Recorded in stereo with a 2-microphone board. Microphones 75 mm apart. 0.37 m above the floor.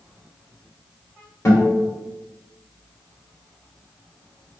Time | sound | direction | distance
1.4 | a guitar | 45° left (ahead or behind) | 2.0 m